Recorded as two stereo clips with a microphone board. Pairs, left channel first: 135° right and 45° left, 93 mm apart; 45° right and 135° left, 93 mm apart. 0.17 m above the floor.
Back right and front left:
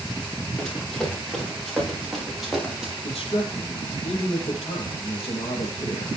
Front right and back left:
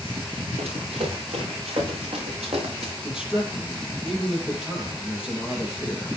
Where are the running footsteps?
140° left, 8.5 m; by 2.9 s 130° left, 6.5 m.